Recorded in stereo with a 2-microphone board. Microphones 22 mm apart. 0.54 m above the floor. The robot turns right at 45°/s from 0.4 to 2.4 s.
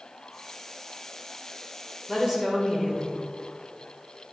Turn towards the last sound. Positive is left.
turn(degrees=-25)  # may be behind; listen again after turning